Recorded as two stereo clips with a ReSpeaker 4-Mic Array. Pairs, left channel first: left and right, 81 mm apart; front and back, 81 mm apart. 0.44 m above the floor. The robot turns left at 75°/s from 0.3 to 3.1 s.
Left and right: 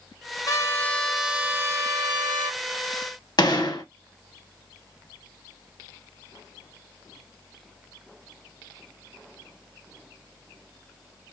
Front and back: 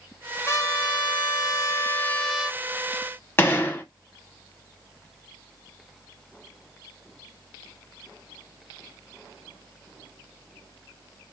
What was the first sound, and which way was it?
A trumpet, 50° left.